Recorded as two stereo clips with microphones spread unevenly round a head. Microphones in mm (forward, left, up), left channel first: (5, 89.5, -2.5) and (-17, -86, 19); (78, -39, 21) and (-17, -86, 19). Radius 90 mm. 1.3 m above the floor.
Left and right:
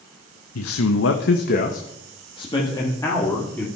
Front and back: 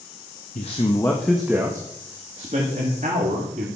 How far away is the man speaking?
About 1.2 m.